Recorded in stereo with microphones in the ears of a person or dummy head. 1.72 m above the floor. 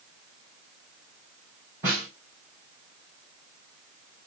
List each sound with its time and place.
1.8 s a snare drum: 5° right (ahead or behind), 2.5 m